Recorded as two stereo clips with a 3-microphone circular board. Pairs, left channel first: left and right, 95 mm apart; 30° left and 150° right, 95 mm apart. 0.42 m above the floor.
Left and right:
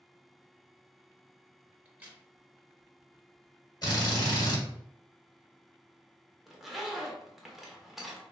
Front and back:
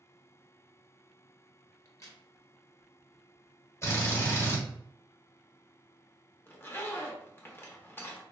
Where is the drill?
75° left, 1.4 m.